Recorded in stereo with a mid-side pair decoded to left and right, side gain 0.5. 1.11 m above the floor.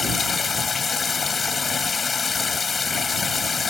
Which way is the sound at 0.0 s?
35° left.